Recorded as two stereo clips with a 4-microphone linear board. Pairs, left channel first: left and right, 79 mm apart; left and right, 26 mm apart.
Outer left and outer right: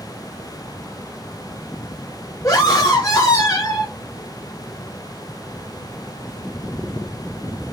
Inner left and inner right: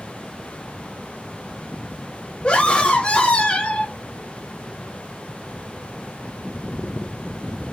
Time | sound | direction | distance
2.4 | a scream | 35° left (ahead or behind) | 3.5 m